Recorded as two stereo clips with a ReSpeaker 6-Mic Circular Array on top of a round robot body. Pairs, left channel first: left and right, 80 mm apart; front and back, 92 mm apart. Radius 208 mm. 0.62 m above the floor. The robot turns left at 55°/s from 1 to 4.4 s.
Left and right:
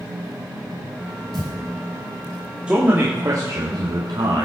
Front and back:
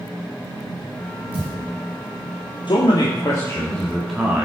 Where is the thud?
Straight behind, 7.5 m; by 1.6 s 165° left, 7.5 m.